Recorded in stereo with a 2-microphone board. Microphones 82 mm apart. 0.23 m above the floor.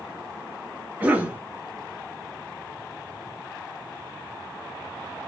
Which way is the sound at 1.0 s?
20° right (ahead or behind).